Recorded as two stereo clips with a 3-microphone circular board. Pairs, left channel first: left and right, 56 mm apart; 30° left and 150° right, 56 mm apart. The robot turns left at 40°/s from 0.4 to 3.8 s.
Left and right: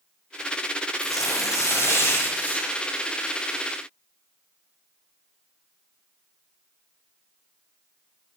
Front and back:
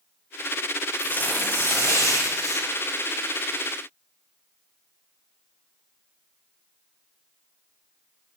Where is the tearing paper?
90° left, 1.5 m; by 2.7 s 20° left, 1.5 m.